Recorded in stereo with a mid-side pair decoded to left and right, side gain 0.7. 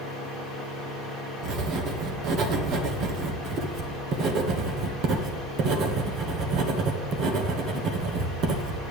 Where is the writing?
50° right, 1.4 m.